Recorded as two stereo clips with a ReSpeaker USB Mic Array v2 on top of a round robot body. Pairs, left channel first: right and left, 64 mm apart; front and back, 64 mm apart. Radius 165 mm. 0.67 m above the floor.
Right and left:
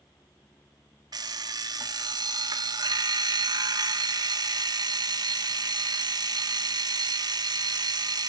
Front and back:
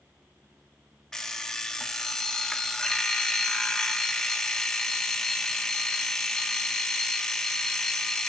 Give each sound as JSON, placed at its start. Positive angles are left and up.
{"t": 1.1, "sound": "an alarm clock", "azimuth_deg": 80, "distance_m": 1.0}